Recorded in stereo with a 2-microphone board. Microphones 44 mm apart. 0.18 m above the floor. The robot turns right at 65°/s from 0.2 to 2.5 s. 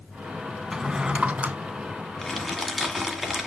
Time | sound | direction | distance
0.7 | a drawer | 165° right | 0.6 m
2.2 | crumpling | 5° left (ahead or behind) | 1.4 m